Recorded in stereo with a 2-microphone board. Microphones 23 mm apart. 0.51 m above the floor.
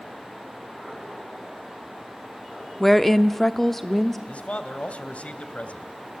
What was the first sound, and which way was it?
A woman speaking, 10° left (ahead or behind).